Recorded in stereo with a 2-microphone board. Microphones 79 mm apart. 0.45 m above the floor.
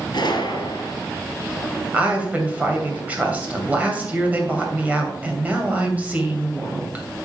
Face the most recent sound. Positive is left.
turn(degrees=-20)  # may be behind; listen again after turning